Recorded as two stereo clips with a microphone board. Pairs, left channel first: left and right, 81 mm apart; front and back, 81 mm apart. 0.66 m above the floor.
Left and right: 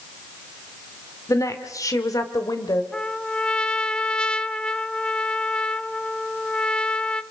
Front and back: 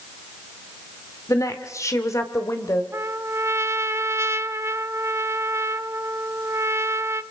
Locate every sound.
1.3 s a woman speaking: 45° left, 1.9 m; by 2.8 s 50° left, 2.5 m
2.9 s a trumpet: 160° left, 0.6 m